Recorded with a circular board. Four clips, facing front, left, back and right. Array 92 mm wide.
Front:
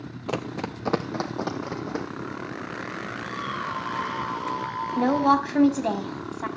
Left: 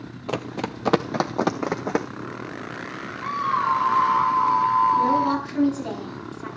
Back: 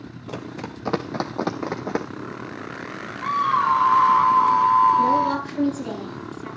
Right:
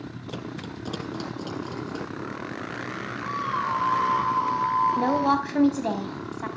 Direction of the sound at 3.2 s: 160° left.